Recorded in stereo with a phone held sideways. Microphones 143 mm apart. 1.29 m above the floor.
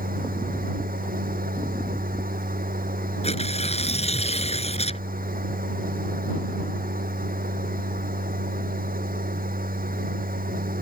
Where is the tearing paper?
45° left (ahead or behind).